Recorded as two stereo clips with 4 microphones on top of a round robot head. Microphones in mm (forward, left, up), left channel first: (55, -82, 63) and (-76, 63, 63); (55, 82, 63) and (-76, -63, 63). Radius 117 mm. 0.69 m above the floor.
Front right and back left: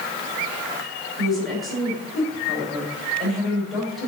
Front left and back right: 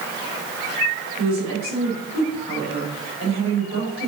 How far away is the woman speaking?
About 4 m.